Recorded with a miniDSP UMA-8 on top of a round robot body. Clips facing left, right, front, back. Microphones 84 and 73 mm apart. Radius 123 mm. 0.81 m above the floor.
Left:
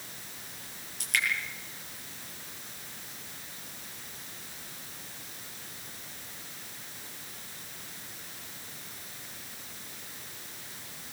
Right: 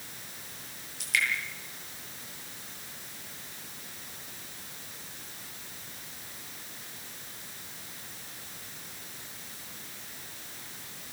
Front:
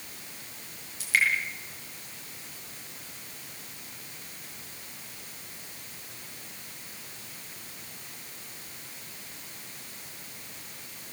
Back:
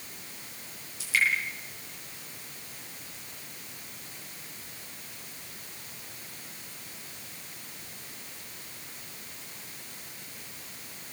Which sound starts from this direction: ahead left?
Dripping, at 1.0 s.